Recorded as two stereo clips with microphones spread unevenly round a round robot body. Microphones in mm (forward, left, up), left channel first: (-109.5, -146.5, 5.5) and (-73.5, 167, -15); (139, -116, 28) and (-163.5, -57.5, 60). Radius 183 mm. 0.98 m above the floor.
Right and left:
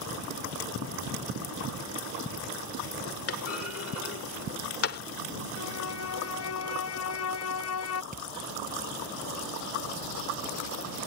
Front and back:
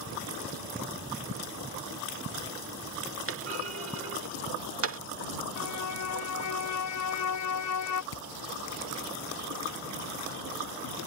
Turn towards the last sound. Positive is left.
turn(degrees=15)